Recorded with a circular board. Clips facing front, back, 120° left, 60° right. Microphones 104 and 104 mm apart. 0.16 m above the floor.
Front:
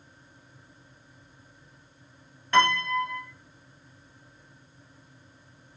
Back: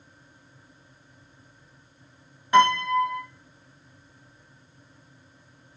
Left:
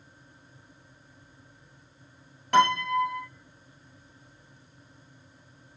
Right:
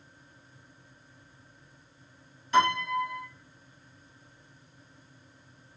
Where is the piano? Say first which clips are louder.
Back 4 dB, left 3 dB; 105° left, 2.0 m.